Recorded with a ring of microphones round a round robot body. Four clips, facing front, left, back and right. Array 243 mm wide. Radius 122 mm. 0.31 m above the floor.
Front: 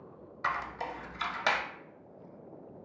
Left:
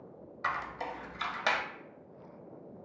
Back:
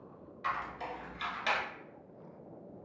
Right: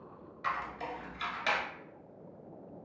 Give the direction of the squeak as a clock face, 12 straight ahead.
11 o'clock.